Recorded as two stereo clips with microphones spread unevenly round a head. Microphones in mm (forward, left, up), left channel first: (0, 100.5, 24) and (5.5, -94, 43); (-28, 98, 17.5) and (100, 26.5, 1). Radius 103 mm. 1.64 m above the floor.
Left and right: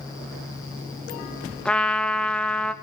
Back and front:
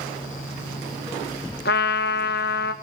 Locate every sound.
1.6 s a trumpet: straight behind, 1.5 m